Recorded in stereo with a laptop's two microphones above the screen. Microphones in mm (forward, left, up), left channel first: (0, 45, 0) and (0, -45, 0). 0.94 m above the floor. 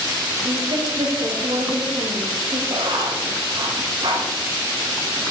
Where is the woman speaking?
75° right (ahead or behind), 2.5 m.